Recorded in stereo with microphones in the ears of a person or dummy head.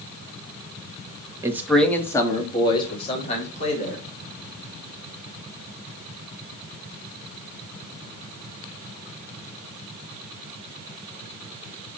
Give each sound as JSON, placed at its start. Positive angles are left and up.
{"t": 1.4, "sound": "a man speaking", "side_deg": -15, "distance_m": 1.2}